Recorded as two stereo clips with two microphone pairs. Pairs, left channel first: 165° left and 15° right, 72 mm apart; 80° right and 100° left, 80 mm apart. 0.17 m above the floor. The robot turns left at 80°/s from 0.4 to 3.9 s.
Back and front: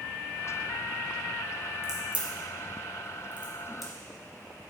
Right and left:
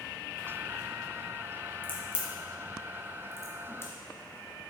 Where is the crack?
55° left, 1.6 m; by 3.9 s 110° right, 1.6 m.